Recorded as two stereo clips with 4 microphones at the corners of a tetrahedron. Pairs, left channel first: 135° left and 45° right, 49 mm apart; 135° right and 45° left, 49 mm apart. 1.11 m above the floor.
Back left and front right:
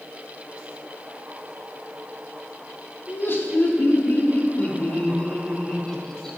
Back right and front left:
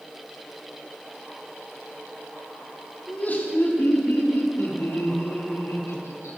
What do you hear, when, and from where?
3.1 s laughter: 170° left, 3 m; by 6.4 s 140° right, 2 m